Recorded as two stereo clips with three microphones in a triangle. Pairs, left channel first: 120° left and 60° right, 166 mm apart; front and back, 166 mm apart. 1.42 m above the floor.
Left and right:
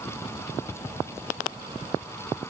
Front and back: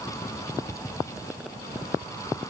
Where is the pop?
No pop in this recording.